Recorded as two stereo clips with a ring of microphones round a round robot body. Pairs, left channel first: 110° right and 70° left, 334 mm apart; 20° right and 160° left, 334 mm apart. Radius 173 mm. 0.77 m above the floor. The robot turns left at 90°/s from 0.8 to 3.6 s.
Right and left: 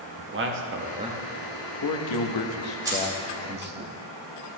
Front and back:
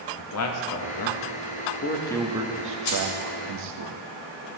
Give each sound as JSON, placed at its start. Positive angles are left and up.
{"t": 0.2, "sound": "a man speaking", "azimuth_deg": 15, "distance_m": 1.1}
{"t": 2.9, "sound": "keys jangling", "azimuth_deg": -10, "distance_m": 3.0}